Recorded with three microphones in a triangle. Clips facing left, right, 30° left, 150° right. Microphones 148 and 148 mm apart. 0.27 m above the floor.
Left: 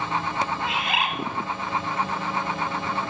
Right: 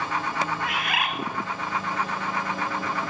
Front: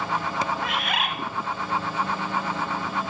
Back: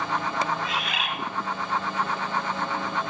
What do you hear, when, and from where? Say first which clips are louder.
0.6 s a bird: left 2 dB, front 2 dB; 30° left, 0.7 m